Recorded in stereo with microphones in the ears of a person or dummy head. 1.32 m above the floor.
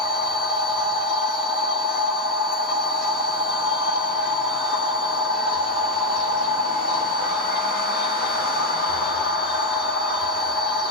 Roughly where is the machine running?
Left.